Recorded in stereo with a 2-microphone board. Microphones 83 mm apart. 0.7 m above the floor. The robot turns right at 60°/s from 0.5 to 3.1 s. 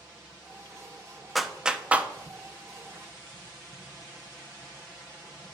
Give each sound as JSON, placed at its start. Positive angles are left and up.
{"t": 1.4, "sound": "a clap", "side_deg": 0, "distance_m": 0.6}